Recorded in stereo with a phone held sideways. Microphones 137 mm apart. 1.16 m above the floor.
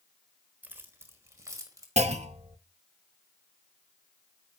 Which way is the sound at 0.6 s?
15° right (ahead or behind).